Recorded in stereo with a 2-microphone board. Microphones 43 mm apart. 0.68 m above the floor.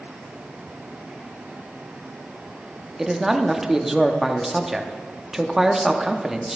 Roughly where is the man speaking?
Centre.